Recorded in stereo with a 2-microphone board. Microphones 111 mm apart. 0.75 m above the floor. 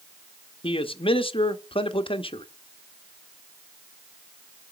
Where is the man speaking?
55° left (ahead or behind), 0.8 m.